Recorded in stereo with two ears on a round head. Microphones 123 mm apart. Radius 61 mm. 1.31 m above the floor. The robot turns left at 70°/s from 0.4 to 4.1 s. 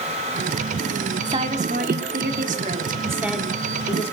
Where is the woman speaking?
30° right, 2.5 m; by 4.1 s 130° left, 2.5 m.